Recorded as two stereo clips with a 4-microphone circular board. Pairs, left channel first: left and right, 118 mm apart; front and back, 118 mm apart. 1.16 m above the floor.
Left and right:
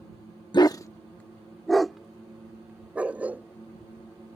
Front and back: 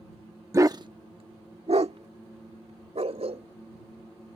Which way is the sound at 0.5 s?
125° left.